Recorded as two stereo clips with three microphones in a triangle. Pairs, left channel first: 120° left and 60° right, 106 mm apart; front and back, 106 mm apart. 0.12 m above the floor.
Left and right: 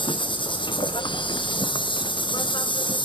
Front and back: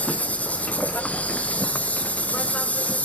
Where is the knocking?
I don't hear knocking.